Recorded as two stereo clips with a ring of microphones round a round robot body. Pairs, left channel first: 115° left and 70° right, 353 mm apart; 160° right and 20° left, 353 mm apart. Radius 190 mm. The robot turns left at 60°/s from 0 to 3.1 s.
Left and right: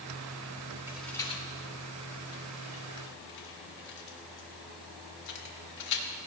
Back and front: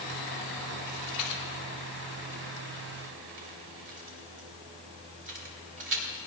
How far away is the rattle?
About 2.5 m.